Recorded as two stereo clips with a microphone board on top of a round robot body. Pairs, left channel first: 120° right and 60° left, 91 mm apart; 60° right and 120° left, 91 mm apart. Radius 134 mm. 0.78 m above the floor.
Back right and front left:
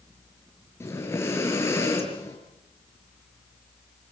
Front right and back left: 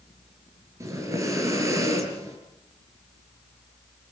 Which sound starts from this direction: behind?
Breathing, at 0.8 s.